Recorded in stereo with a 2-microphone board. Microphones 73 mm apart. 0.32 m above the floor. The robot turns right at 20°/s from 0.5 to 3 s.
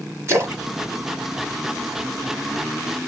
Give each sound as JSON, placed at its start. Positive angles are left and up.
{"t": 0.3, "sound": "a splash", "side_deg": -40, "distance_m": 1.1}